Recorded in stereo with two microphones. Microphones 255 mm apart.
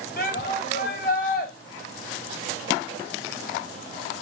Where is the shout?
40° left (ahead or behind), 2.5 m.